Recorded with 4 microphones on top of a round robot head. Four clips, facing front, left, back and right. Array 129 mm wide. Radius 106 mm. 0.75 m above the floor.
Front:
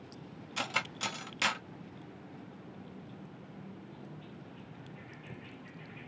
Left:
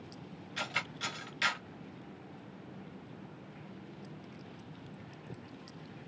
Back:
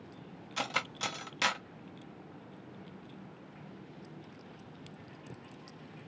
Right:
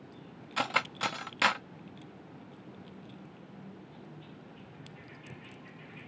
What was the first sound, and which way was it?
Cutlery clinking, 110° right.